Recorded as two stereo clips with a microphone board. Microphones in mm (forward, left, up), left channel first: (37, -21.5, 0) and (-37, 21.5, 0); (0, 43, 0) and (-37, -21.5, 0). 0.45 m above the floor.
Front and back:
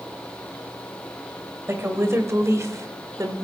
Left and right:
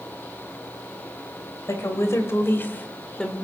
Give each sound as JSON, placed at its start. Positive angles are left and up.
{"t": 1.7, "sound": "a woman speaking", "azimuth_deg": 95, "distance_m": 1.9}